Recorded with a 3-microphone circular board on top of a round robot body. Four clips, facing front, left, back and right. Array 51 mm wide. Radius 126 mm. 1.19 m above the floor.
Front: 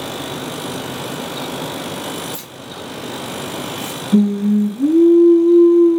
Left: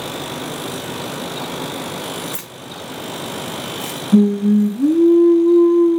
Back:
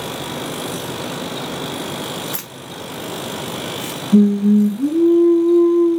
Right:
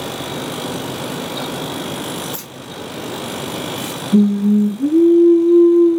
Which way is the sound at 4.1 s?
85° left.